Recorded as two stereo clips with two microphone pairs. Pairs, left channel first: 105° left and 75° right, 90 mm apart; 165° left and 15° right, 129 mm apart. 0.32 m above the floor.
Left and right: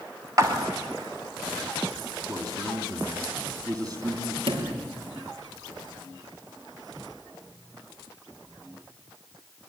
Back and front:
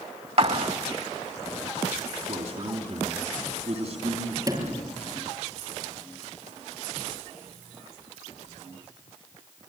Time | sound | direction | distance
0.4 | a clap | 30° right | 2 m
2.2 | a man speaking | 35° right | 3 m
4.5 | a sliding door | 75° right | 6.5 m